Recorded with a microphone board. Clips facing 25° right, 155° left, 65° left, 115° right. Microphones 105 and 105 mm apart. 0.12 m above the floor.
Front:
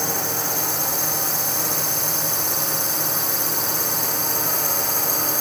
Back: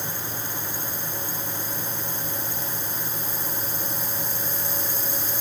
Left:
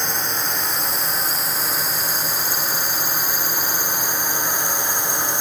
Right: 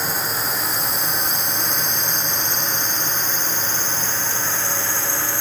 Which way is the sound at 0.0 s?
25° right.